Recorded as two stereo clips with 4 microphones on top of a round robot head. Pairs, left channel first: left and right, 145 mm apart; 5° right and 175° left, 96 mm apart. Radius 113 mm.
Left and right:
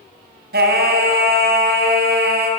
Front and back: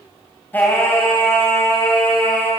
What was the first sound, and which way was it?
Singing, 80° right.